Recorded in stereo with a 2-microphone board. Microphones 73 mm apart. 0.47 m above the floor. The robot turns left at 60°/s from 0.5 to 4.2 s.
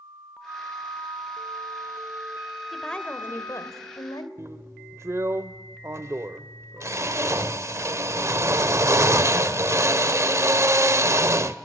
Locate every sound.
0.5 s a flute: 45° right, 0.6 m; by 3.7 s 125° left, 0.6 m
2.7 s a woman speaking: straight behind, 1.4 m; by 4.3 s 90° left, 1.4 m
4.4 s a drill: 40° right (ahead or behind), 0.5 m